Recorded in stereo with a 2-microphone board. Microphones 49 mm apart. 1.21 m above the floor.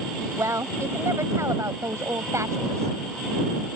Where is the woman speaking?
85° right.